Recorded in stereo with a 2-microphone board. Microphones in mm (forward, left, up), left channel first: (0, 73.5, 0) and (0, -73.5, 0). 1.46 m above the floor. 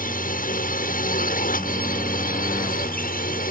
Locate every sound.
0.0 s a drone: 70° left (ahead or behind); by 3.5 s 75° left (ahead or behind)